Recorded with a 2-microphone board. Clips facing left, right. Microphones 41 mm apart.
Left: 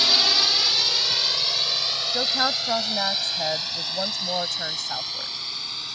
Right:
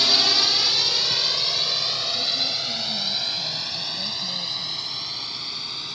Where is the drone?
5° left (ahead or behind); by 6.0 s centre (ahead or behind).